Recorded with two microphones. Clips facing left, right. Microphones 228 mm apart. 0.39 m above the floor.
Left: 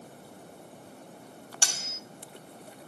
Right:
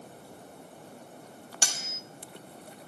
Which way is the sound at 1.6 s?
15° right (ahead or behind).